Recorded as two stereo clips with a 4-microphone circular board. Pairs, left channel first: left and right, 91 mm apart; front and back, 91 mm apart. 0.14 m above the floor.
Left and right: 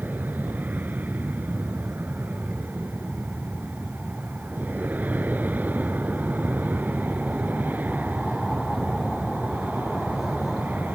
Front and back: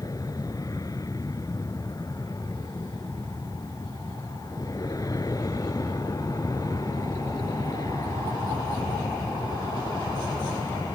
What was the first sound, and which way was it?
An aircraft, 25° right.